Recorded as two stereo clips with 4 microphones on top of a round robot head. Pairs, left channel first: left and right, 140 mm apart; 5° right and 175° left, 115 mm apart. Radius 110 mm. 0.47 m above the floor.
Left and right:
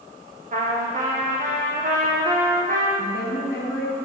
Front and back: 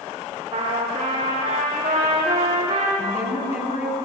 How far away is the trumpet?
About 4.5 m.